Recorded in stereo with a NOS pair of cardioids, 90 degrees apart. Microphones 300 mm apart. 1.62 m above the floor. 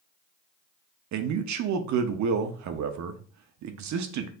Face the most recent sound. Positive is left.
turn(degrees=-70)